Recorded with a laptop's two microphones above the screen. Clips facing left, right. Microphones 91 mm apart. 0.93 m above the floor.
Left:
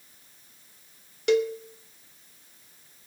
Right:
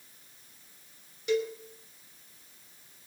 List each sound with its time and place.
1.3 s a cowbell: 70° left (ahead or behind), 1.1 m